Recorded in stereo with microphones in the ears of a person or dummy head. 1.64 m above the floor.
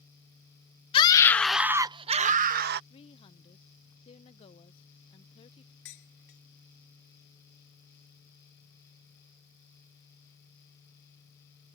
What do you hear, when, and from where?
0.9 s a scream: 25° left (ahead or behind); by 2.8 s 60° right (ahead or behind)
2.9 s a woman speaking: 30° left (ahead or behind)
5.8 s dishes clattering: 65° left (ahead or behind)